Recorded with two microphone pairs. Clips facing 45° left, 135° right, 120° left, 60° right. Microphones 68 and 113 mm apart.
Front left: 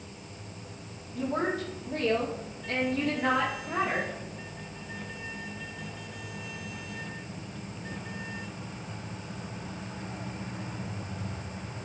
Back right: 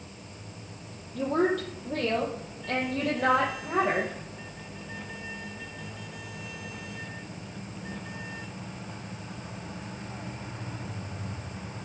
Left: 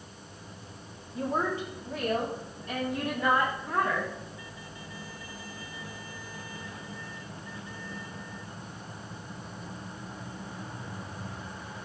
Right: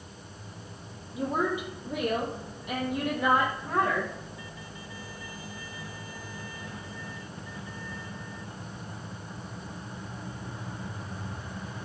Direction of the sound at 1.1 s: 140° right.